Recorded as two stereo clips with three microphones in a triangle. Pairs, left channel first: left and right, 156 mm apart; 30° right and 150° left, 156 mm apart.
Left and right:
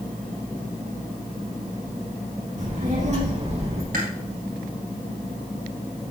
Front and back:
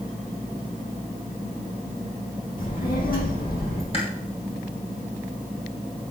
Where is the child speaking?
60° right, 4 m; by 3.8 s 40° right, 4 m.